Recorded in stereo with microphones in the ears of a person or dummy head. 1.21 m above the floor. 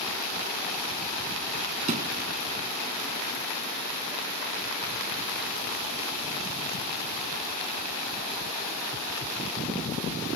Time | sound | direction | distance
1.9 | a thud | 40° right (ahead or behind) | ?